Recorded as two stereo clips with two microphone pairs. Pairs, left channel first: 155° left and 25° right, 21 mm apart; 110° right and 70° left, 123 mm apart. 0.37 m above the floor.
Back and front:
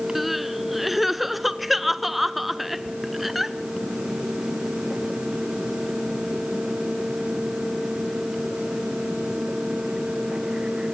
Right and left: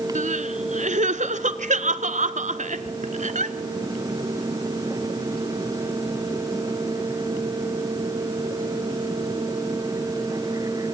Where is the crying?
60° left, 0.9 m.